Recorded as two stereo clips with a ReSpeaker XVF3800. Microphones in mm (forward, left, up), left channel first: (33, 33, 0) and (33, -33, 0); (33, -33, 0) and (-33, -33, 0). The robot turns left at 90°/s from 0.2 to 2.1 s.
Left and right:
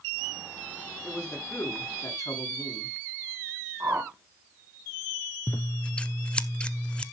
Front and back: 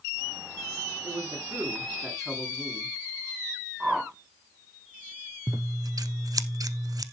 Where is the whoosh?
110° right, 1.2 m.